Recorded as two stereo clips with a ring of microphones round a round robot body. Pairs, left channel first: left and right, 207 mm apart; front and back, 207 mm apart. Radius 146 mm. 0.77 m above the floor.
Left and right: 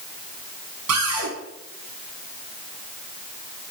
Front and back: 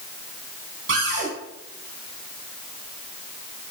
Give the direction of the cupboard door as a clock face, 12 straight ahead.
4 o'clock.